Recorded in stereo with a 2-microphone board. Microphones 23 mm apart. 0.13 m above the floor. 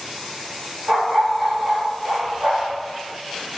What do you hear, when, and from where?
0.9 s a dog barking: 80° right, 2.5 m